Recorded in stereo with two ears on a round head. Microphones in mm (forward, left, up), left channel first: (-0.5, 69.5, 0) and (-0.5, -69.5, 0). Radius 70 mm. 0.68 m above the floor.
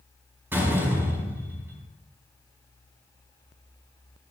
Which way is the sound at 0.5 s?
15° right (ahead or behind).